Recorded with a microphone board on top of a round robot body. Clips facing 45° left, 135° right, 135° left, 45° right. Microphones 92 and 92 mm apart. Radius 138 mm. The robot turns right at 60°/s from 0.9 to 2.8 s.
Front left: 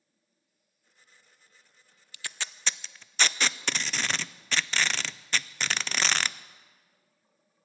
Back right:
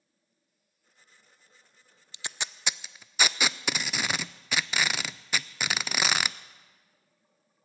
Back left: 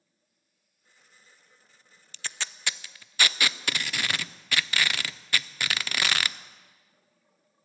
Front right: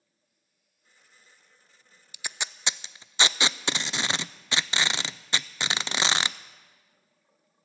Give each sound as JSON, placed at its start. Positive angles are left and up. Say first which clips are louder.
{"t": 2.1, "sound": "tape being pulled", "louder": "back right 1 dB, front right 1 dB", "azimuth_deg": -105, "distance_m": 0.5}